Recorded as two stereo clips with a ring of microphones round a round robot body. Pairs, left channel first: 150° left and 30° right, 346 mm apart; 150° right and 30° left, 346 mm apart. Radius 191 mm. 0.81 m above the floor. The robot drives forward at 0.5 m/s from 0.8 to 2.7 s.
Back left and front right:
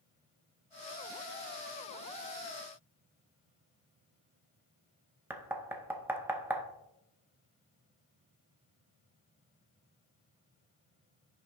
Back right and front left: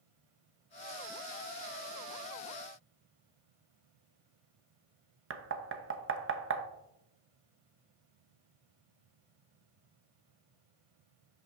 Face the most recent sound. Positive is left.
turn(degrees=50)